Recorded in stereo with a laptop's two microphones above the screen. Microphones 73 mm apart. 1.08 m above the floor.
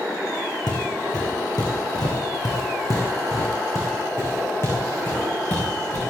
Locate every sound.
0.7 s footsteps: 75° left (ahead or behind), 4 m; by 6.0 s 25° left (ahead or behind), 5.5 m